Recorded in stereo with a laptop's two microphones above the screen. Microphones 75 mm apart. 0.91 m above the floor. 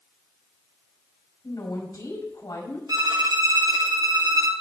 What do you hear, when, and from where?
1.4 s a woman speaking: 60° left (ahead or behind), 5.5 m
2.9 s a violin: 55° right (ahead or behind), 1.4 m